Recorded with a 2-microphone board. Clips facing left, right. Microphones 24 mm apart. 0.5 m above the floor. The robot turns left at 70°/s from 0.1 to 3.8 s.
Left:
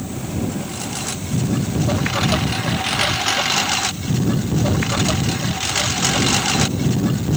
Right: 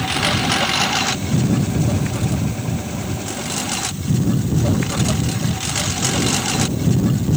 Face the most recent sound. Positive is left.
turn(degrees=10)  # may be behind; listen again after turning